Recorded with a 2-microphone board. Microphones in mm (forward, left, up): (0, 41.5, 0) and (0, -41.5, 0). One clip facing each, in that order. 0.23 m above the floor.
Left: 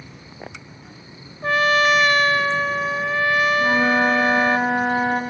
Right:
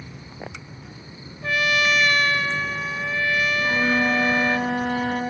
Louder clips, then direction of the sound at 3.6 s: Left 4 dB; 65° left (ahead or behind).